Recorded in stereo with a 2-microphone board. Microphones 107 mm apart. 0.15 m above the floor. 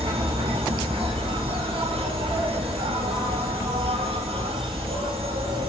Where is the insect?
60° right (ahead or behind), 1.3 m.